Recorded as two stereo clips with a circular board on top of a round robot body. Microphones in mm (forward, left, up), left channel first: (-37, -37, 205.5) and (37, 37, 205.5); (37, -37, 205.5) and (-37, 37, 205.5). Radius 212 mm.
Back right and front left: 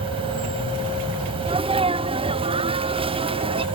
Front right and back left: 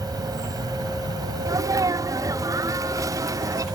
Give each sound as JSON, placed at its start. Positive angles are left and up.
{"t": 0.0, "sound": "an insect", "azimuth_deg": 80}
{"t": 1.4, "sound": "a sneeze", "azimuth_deg": 75}